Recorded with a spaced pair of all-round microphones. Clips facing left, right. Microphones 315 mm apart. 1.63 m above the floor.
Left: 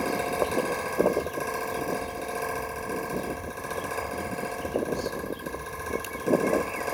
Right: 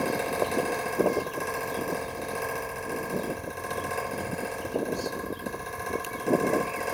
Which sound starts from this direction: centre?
A fan, at 0.0 s.